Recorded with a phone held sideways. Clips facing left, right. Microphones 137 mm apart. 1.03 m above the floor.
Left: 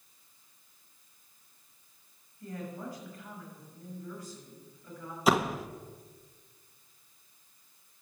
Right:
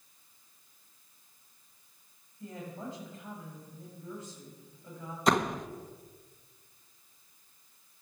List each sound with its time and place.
2.4 s a woman speaking: 25° right (ahead or behind), 7 m
5.3 s a door slam: 5° left (ahead or behind), 0.6 m